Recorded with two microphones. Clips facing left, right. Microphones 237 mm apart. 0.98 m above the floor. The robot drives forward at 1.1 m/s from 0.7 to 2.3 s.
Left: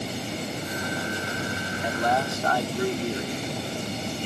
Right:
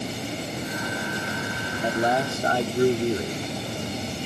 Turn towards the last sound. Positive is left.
turn(degrees=-30)  # may be behind; listen again after turning